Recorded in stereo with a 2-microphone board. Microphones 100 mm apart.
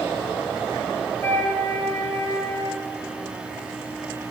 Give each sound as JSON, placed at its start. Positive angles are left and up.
{"t": 1.2, "sound": "a flute", "side_deg": 25, "distance_m": 2.5}